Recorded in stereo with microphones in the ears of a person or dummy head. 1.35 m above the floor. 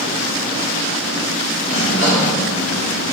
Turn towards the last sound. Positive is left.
turn(degrees=75)  # may be behind; listen again after turning